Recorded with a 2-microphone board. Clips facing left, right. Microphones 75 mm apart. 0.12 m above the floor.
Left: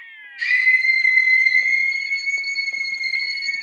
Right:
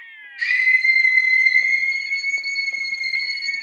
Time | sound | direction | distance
0.4 | a scream | 25° right (ahead or behind) | 1.6 m